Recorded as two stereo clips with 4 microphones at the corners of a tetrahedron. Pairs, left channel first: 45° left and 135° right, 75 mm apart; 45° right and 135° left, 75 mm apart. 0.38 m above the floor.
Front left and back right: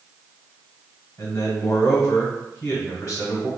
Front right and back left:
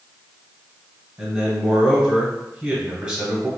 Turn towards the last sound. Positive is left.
turn(degrees=75)